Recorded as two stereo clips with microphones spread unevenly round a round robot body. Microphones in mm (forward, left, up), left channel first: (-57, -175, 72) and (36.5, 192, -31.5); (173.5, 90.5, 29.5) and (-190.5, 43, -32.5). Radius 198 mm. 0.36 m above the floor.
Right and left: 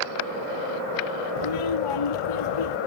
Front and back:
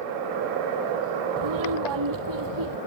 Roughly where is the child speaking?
Behind right.